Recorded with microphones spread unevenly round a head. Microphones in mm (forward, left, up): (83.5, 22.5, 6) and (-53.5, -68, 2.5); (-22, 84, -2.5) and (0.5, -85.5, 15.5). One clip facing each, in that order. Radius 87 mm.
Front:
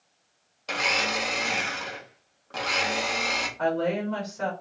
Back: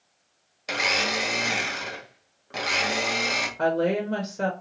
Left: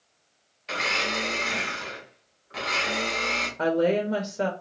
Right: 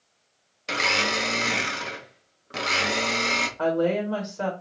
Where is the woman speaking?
160° left, 0.7 m.